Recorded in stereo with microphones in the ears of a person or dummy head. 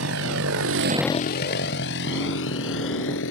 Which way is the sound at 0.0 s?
75° right (ahead or behind).